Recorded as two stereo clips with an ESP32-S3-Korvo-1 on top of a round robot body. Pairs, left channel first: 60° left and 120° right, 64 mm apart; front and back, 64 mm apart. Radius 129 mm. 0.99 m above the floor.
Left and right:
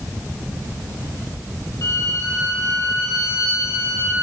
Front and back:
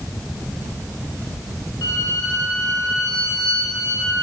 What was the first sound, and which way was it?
A violin, 25° left.